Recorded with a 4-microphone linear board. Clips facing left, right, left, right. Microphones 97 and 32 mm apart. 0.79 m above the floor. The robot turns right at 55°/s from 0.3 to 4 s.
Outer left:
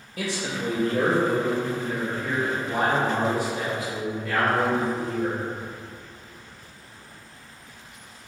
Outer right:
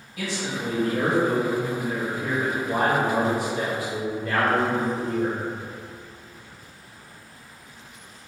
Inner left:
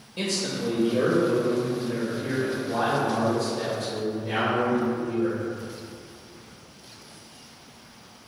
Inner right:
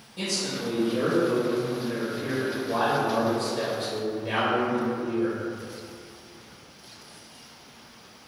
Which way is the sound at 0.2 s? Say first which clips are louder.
Even, inner left 2 dB; 115° left.